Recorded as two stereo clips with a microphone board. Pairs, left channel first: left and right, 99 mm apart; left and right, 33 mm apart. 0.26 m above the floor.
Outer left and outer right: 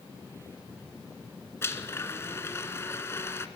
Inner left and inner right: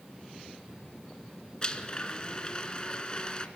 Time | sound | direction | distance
1.6 | a blender | 25° left (ahead or behind) | 1.4 m